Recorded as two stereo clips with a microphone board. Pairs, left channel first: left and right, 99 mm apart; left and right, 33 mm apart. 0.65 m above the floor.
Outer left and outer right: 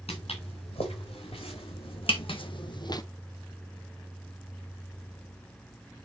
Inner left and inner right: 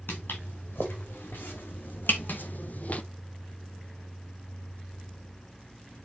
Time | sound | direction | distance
0.1 | footsteps | 80° left | 4 m